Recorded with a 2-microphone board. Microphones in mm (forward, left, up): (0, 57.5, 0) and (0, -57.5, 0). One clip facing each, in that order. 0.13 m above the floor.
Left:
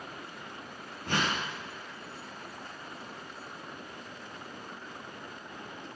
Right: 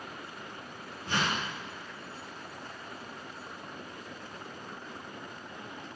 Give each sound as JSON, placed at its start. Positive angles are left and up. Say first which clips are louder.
{"t": 1.1, "sound": "a whoosh", "louder": "left 1 dB", "side_deg": 60, "distance_m": 3.5}